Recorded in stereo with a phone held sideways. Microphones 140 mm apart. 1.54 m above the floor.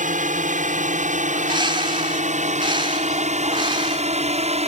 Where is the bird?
35° right (ahead or behind).